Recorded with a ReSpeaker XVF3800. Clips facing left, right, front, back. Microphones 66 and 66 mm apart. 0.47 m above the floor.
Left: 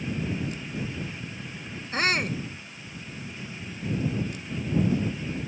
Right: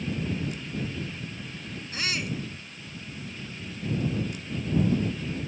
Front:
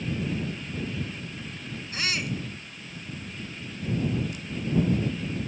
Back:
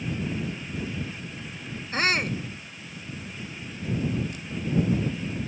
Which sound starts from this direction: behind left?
A shout, at 1.9 s.